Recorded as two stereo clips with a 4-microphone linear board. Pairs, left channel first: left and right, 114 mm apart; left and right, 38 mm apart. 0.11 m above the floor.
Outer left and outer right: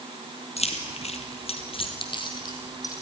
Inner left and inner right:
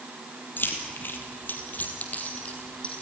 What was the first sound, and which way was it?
Keys jangling, 65° left (ahead or behind).